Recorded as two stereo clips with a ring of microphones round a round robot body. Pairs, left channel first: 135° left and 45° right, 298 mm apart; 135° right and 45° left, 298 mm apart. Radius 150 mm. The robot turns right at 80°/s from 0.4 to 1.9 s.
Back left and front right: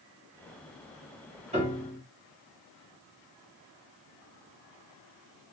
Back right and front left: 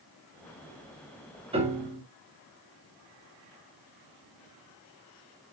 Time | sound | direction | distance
1.5 | a piano | 5° right | 1.3 m